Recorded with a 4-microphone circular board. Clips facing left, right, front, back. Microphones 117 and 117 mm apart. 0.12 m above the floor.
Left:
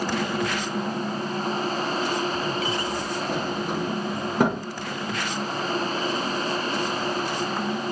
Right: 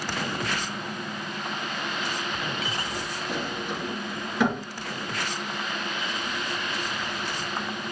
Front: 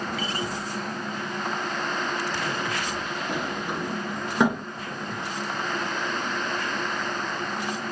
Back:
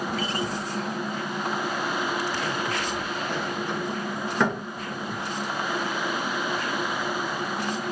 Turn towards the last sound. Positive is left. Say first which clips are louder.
# left 3 dB, front 1 dB
turn(degrees=70)